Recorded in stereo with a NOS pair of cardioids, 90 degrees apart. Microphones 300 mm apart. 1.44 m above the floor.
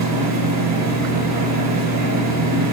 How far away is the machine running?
About 1.4 m.